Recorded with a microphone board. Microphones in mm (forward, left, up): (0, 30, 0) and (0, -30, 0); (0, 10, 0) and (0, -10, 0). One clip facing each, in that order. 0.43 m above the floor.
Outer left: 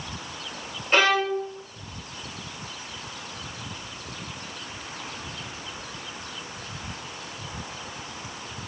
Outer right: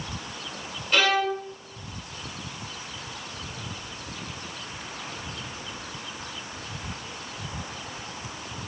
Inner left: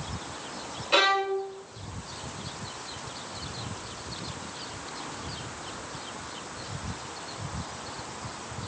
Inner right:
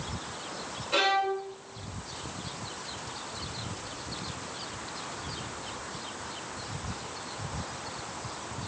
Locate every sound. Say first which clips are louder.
0.9 s a violin: outer left 2 dB, inner left 3 dB; 30° left (ahead or behind), 0.7 m